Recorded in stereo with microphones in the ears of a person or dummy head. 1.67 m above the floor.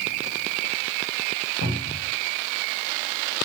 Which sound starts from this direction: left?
A cupboard door, at 1.6 s.